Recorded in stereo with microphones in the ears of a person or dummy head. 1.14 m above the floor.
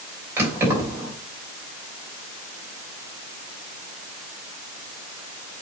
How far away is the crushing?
I don't hear crushing.